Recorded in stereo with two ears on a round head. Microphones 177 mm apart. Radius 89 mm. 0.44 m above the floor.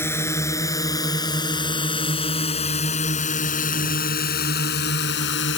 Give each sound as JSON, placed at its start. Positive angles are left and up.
{"t": 0.0, "sound": "a drone", "side_deg": 15}